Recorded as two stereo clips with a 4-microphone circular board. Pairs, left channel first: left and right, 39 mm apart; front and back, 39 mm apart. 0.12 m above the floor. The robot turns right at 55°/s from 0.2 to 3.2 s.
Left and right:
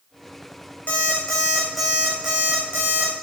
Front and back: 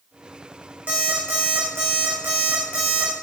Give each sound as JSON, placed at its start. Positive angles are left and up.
{"t": 0.9, "sound": "an alarm clock", "azimuth_deg": 130, "distance_m": 3.5}